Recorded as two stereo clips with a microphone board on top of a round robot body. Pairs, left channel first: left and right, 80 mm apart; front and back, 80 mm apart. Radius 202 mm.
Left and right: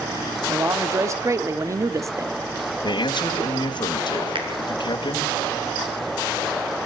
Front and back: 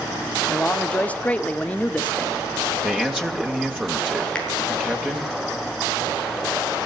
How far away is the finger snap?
About 6.5 m.